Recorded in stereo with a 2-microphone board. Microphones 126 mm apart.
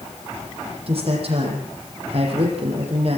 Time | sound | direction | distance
0.9 | a man speaking | 50° right (ahead or behind) | 9.5 m